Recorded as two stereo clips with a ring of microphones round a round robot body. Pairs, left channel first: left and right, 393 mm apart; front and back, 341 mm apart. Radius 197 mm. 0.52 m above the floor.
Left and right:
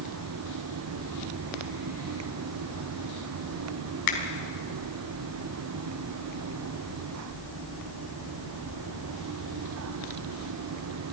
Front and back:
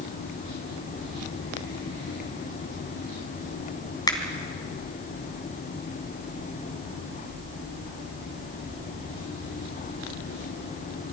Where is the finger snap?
80° left, 3.5 m.